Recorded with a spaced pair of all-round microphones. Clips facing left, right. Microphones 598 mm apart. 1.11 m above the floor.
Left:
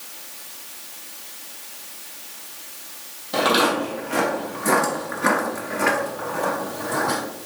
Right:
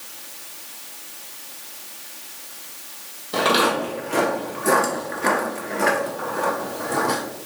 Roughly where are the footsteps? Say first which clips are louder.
Even; centre.